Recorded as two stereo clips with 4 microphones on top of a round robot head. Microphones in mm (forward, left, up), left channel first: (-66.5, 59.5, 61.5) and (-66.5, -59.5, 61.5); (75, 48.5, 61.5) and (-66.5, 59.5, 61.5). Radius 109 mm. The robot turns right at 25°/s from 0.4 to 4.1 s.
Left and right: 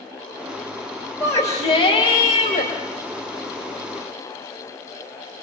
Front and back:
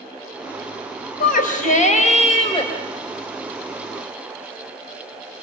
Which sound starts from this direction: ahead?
A shout, at 1.2 s.